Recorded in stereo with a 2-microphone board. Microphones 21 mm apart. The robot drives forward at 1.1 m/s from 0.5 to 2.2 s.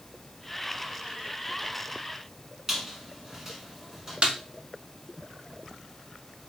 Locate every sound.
2.7 s a squeak: 15° right (ahead or behind), 1.7 m
4.2 s a snare drum: 50° right (ahead or behind), 0.8 m